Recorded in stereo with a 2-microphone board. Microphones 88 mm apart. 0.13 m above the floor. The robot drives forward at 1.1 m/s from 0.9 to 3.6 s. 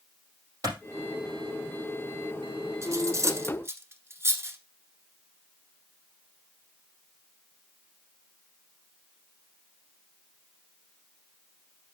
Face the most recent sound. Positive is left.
turn(degrees=-30)  # may be behind; listen again after turning